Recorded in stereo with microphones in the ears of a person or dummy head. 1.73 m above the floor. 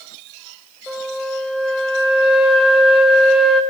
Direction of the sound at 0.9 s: Centre (ahead or behind).